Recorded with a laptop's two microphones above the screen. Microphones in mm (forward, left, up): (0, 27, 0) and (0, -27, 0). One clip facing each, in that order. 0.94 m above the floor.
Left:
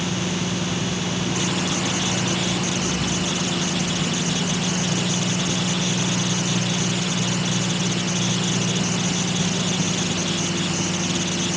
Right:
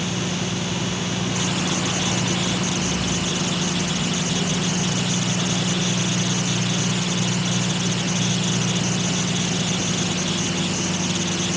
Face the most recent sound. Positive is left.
No sound to turn to.